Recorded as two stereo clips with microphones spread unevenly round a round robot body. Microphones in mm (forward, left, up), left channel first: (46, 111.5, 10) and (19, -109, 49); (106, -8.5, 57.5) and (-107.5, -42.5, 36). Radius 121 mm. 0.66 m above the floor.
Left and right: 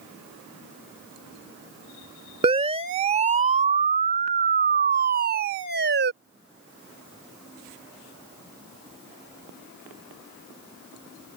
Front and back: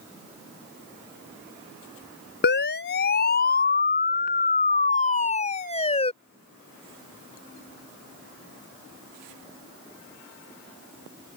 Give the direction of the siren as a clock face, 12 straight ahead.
1 o'clock.